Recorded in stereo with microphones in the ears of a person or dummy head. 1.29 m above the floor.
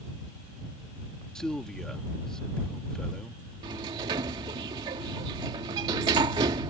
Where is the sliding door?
25° right (ahead or behind).